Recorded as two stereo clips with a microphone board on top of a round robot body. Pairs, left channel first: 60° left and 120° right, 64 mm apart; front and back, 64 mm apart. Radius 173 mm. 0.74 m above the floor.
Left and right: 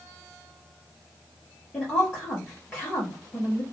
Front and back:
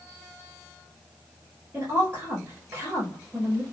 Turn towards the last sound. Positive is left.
turn(degrees=115)